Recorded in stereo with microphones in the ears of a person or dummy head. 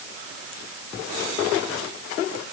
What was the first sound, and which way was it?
Only background noise.